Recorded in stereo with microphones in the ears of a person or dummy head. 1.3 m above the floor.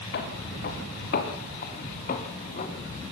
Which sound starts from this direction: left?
Footsteps, at 0.1 s.